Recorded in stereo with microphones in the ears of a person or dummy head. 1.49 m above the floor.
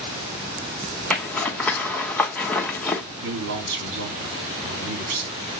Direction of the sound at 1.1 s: 5° left (ahead or behind).